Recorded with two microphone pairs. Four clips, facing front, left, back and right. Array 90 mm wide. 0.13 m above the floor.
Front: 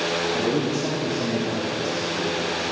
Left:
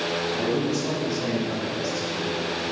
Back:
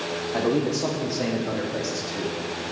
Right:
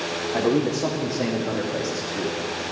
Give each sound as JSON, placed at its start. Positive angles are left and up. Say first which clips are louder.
{"t": 0.3, "sound": "a man speaking", "louder": "right 6 dB, back 4 dB", "azimuth_deg": -135, "distance_m": 4.0}